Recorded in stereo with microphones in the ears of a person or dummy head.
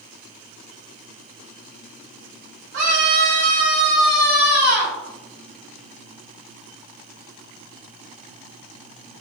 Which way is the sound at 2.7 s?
55° right (ahead or behind).